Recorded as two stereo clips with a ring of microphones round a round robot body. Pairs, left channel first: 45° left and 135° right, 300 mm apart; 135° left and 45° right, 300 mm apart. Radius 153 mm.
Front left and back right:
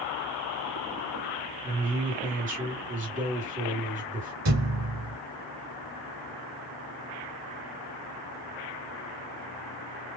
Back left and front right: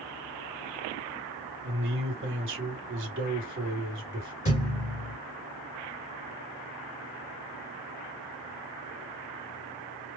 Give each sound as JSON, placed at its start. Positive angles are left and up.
{"t": 1.6, "sound": "a man speaking", "azimuth_deg": -80, "distance_m": 1.8}
{"t": 4.5, "sound": "a thud", "azimuth_deg": -160, "distance_m": 1.6}